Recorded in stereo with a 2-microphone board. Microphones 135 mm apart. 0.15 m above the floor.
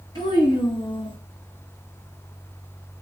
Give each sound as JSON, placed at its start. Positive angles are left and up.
{"t": 0.1, "sound": "a child speaking", "side_deg": 30, "distance_m": 2.0}